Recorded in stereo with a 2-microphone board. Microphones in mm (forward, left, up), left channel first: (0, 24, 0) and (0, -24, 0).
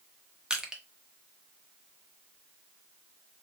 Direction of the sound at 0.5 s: 15° right (ahead or behind).